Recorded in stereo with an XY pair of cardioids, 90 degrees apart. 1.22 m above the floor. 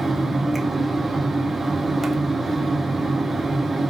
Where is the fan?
30° right, 0.8 m.